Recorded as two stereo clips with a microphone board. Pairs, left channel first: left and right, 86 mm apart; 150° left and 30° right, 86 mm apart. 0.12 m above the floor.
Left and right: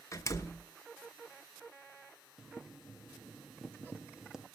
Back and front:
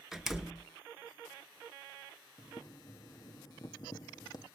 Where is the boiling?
175° right, 1.1 m.